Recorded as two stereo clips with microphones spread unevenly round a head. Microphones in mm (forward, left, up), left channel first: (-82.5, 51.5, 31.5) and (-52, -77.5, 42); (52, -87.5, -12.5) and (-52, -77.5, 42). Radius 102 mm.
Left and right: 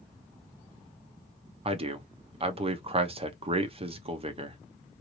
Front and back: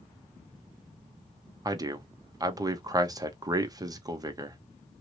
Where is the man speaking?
110° right, 0.8 m.